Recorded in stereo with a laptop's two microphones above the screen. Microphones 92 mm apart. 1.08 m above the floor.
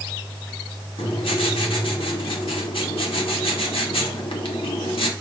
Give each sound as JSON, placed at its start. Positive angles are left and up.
{"t": 1.0, "sound": "writing", "side_deg": 80, "distance_m": 1.7}